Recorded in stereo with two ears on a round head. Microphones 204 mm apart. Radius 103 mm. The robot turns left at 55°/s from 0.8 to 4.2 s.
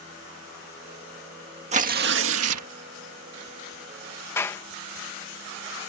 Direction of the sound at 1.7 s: 30° right.